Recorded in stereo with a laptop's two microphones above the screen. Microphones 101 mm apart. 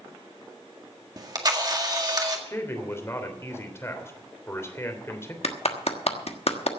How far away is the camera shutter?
About 1.7 m.